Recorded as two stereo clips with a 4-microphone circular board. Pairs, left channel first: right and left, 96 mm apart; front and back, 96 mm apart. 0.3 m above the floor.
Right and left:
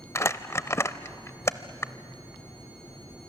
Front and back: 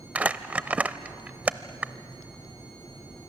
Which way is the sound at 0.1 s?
120° right.